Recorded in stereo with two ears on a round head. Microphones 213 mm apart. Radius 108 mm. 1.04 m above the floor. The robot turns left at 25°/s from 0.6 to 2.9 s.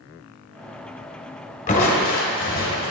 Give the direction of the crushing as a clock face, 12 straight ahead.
7 o'clock.